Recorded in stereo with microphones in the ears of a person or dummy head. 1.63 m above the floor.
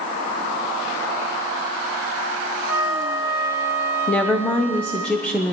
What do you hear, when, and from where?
2.7 s a flute: 5° right (ahead or behind), 1.6 m
4.1 s a woman speaking: 15° left (ahead or behind), 0.9 m